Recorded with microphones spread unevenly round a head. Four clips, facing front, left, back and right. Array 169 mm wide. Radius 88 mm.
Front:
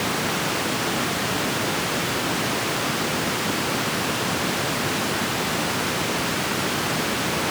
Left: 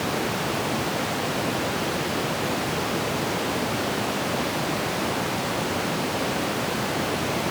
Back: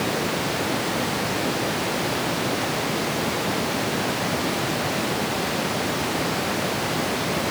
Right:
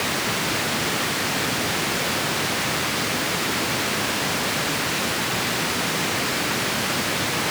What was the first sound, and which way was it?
Only background noise.